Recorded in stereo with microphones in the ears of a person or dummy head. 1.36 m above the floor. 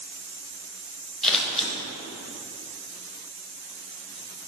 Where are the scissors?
5° left (ahead or behind), 1.0 m.